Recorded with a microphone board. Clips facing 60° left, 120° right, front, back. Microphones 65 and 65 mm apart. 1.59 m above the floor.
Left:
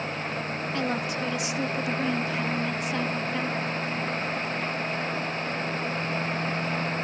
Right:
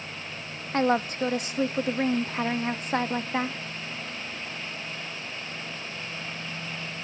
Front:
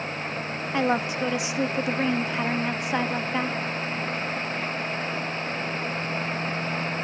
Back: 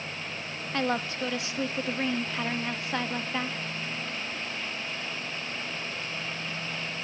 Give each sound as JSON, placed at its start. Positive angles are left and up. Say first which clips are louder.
{"t": 0.7, "sound": "a woman speaking", "louder": "right 7 dB, front 5 dB", "azimuth_deg": -75, "distance_m": 0.7}